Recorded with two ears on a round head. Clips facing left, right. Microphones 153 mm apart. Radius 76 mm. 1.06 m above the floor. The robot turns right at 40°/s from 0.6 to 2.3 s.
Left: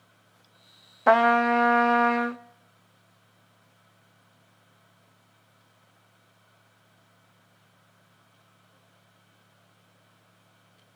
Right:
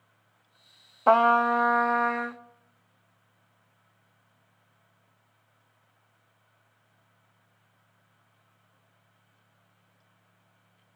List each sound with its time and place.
1.1 s a trumpet: 10° left, 0.6 m; by 2.4 s 60° left, 0.6 m